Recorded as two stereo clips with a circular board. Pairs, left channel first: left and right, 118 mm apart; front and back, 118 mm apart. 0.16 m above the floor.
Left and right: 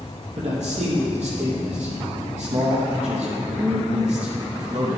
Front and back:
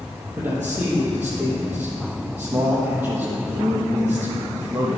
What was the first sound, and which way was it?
A man speaking, 105° right.